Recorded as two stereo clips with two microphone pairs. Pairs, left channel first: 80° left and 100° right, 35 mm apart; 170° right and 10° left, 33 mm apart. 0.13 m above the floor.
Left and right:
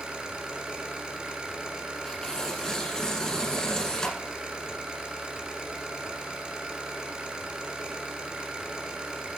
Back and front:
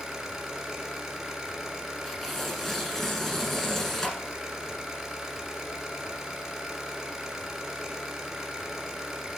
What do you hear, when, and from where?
0.0 s an engine running: 60° right, 1.6 m
2.0 s tearing paper: 125° left, 1.1 m